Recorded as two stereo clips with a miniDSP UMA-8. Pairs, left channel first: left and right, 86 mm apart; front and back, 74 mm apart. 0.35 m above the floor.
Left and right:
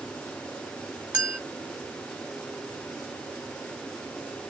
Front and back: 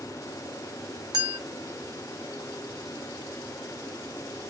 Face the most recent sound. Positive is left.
turn(degrees=-160)